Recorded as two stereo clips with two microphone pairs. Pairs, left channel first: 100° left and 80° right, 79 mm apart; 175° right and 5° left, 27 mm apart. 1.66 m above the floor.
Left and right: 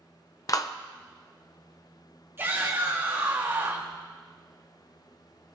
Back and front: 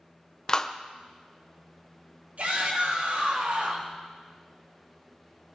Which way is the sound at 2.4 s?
15° right.